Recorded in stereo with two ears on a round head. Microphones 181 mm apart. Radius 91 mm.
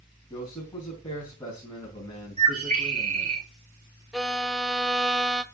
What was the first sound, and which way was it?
A man speaking, 20° left (ahead or behind).